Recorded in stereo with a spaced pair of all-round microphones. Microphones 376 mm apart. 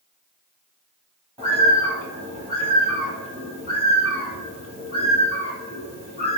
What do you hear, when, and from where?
1.4 s a bird: 15° right (ahead or behind), 1.0 m